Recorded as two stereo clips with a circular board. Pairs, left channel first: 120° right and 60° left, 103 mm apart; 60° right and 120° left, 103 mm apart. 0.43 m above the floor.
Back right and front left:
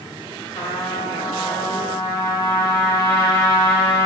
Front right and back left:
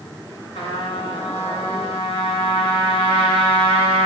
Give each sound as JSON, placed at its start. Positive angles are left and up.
{"t": 0.6, "sound": "a trumpet", "azimuth_deg": -75, "distance_m": 1.2}